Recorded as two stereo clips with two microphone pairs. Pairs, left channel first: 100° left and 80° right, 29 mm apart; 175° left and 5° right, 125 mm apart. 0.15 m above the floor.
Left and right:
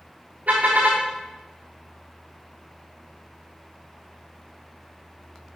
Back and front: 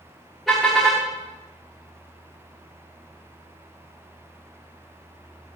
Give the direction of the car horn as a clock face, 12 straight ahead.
3 o'clock.